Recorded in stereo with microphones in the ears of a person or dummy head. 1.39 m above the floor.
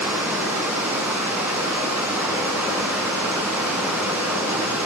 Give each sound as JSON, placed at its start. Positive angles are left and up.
{"t": 0.0, "sound": "running water", "side_deg": -10, "distance_m": 4.0}